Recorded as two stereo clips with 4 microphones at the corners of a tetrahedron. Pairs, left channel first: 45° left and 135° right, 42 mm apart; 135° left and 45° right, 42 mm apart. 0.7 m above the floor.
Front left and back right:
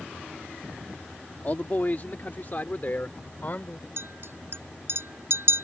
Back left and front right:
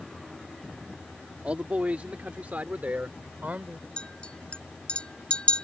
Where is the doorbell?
I don't hear a doorbell.